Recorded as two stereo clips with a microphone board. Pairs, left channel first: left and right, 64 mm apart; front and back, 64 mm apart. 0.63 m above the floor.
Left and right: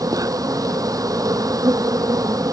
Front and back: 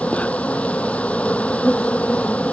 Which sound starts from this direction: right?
An insect, at 0.0 s.